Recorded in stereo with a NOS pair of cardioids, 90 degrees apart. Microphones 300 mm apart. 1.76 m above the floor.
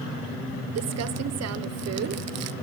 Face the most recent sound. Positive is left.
turn(degrees=-65)